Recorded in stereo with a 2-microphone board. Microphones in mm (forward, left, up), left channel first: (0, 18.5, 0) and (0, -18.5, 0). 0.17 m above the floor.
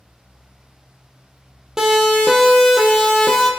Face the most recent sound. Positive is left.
turn(degrees=5)  # may be behind; listen again after turning